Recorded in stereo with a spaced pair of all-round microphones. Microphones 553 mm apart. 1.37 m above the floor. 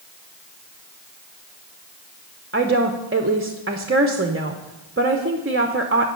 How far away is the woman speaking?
About 0.7 m.